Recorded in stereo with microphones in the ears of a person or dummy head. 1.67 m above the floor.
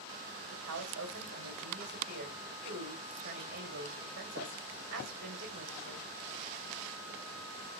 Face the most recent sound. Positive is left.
turn(degrees=-65)  # may be behind; listen again after turning